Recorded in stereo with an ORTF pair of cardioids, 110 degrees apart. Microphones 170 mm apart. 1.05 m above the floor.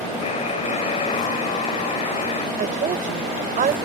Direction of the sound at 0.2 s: 40° left.